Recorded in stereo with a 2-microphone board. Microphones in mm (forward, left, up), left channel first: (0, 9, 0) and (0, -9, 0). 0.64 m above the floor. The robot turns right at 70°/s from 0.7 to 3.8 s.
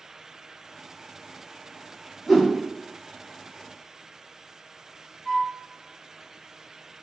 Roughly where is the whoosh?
Centre.